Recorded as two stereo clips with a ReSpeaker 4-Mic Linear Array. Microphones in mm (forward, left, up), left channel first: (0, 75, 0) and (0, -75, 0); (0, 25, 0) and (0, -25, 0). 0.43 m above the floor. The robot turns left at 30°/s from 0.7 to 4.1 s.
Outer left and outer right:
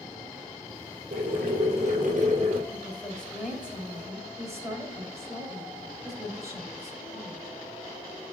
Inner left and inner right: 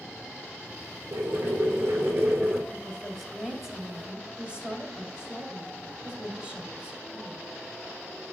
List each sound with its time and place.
1.1 s boiling: 90° right, 2.5 m; by 2.6 s 135° right, 2.5 m
2.7 s a woman speaking: 20° left, 1.9 m; by 7.5 s 20° right, 1.9 m